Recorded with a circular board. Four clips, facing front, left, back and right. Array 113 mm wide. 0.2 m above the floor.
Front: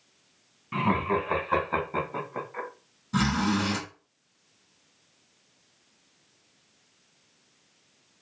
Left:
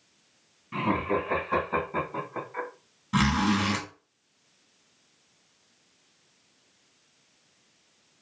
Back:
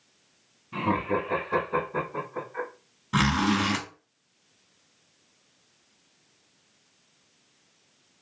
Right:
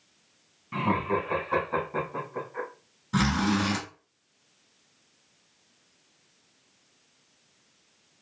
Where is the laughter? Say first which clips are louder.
Even, front 1 dB; 20° right, 1.9 m; by 2.7 s 45° left, 1.3 m.